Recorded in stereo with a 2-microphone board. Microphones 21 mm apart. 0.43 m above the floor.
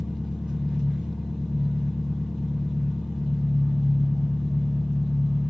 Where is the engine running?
60° right (ahead or behind), 1.5 m.